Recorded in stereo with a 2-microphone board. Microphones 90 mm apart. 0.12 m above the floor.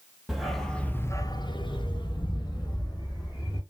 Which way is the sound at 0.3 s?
5° right (ahead or behind).